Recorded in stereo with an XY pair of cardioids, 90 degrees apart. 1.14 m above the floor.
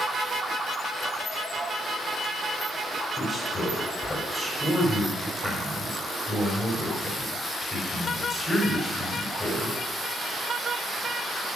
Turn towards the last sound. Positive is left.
turn(degrees=30)